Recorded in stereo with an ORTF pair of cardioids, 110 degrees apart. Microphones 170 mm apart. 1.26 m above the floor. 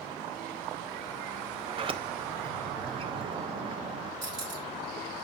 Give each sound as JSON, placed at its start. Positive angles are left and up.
{"t": 1.7, "sound": "a sliding door", "azimuth_deg": -35, "distance_m": 0.8}
{"t": 4.2, "sound": "cutlery clinking", "azimuth_deg": -50, "distance_m": 2.5}